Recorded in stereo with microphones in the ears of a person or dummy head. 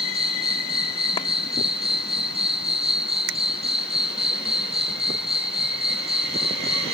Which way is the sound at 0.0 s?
30° right (ahead or behind).